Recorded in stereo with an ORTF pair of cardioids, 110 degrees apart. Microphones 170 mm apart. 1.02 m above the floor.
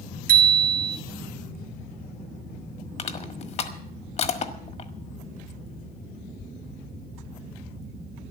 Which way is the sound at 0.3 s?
50° right.